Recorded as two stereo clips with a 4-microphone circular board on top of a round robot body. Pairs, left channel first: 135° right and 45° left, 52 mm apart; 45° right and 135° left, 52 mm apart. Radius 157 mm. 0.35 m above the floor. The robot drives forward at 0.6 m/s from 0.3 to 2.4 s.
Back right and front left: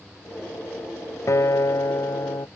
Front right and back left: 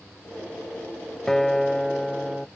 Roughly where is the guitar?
Behind right.